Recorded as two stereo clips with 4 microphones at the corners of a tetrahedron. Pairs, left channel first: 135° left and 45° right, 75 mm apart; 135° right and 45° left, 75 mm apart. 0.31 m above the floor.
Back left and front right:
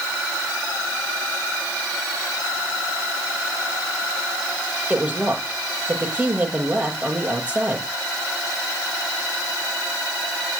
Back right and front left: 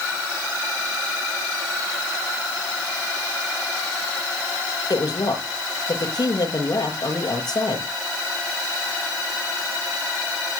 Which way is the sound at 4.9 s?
115° right.